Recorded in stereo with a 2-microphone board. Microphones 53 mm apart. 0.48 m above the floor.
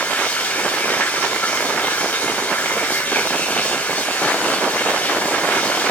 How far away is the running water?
About 3 m.